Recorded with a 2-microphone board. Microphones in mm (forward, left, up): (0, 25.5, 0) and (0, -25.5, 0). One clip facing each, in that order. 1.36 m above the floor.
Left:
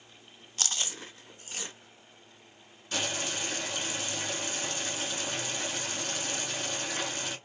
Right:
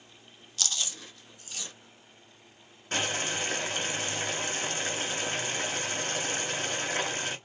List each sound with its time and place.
0.6 s chewing: 35° left (ahead or behind), 0.7 m
2.9 s boiling: 40° right (ahead or behind), 1.6 m